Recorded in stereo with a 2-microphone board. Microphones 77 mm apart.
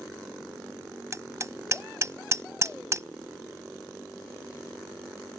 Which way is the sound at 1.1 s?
40° right (ahead or behind).